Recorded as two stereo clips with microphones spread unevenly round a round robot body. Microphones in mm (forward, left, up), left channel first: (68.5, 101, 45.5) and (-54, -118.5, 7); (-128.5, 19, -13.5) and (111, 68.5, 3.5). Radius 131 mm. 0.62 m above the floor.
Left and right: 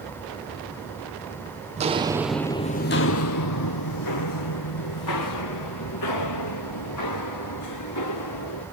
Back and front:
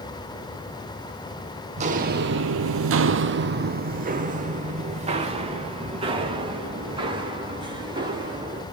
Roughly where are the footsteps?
Ahead right.